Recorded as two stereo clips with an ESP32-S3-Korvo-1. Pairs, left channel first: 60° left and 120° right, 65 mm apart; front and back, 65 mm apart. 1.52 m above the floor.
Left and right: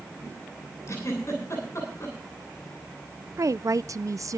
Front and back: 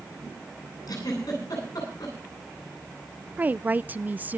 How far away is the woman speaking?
About 0.5 m.